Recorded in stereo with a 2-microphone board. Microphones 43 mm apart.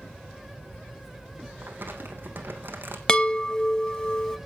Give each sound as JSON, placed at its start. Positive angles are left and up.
{"t": 1.6, "sound": "crumpling", "side_deg": -50, "distance_m": 3.0}
{"t": 3.1, "sound": "a chime", "side_deg": 15, "distance_m": 0.9}